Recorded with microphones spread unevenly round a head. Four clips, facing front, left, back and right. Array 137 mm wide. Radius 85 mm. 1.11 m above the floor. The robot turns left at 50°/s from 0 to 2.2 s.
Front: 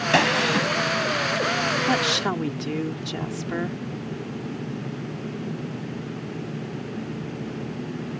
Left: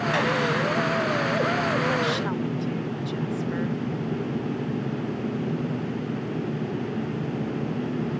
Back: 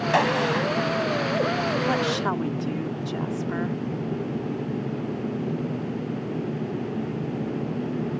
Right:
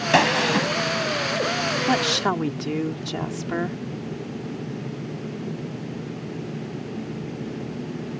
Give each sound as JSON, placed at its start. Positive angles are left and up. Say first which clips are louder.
{"t": 0.1, "sound": "a gunshot", "louder": "right 7 dB, front 1 dB", "azimuth_deg": -70}
{"t": 1.9, "sound": "a woman speaking", "louder": "right 3 dB, even", "azimuth_deg": -75}